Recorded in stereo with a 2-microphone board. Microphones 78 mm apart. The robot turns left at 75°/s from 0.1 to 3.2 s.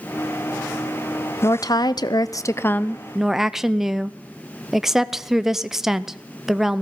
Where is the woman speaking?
130° left, 0.5 m; by 6.8 s 5° right, 0.5 m.